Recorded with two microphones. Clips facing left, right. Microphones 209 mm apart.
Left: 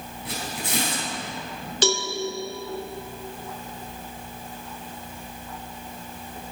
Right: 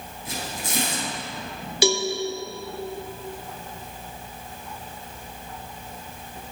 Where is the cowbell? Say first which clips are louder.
Right 3 dB; 10° right (ahead or behind), 0.8 m.